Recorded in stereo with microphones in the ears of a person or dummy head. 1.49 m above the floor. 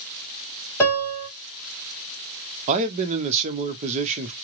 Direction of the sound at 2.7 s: 35° right (ahead or behind).